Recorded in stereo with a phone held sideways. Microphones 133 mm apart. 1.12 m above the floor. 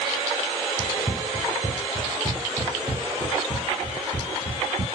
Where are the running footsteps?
45° left (ahead or behind), 1.5 m; by 4.8 s 55° right (ahead or behind), 2 m.